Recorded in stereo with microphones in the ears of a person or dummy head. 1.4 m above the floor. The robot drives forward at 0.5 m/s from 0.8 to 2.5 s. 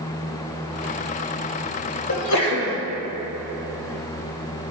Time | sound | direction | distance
2.1 | a sneeze | 80° left | 1.7 m